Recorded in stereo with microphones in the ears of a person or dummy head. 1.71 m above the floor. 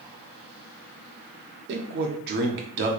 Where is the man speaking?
55° right (ahead or behind), 1.1 m.